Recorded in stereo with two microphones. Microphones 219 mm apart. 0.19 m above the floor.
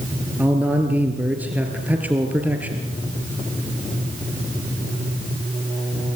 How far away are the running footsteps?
I don't hear running footsteps.